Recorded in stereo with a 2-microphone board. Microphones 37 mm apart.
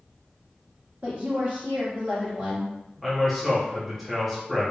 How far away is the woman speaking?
About 1.2 m.